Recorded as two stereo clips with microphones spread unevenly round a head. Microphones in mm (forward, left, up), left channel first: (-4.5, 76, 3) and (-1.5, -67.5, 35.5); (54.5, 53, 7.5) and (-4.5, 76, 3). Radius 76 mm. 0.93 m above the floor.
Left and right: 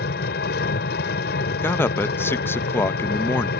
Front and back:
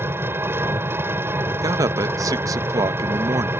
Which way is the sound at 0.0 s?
105° left.